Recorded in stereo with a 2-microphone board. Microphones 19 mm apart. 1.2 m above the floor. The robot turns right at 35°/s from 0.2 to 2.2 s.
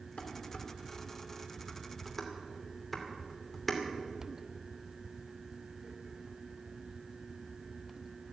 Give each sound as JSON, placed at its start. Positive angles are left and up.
{"t": 0.2, "sound": "dishes clattering", "side_deg": 75, "distance_m": 2.5}